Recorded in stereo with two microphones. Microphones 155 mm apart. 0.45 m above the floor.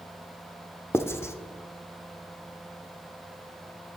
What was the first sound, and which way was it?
Writing, 15° left (ahead or behind).